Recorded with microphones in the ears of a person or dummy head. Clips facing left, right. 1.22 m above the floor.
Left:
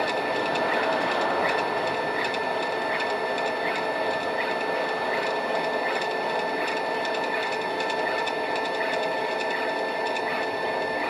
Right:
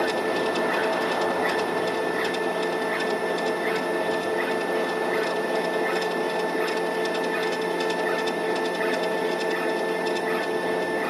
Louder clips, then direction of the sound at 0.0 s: Right 2 dB; centre (ahead or behind).